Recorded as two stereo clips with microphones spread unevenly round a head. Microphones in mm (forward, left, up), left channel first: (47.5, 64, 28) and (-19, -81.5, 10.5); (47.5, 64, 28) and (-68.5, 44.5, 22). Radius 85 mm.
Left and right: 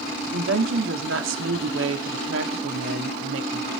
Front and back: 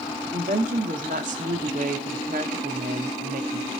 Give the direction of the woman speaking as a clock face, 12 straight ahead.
4 o'clock.